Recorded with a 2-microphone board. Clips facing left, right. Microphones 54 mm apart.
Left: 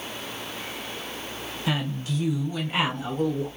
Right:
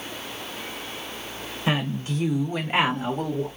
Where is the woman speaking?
30° right (ahead or behind), 1.2 m; by 3.5 s 35° right (ahead or behind), 1.2 m.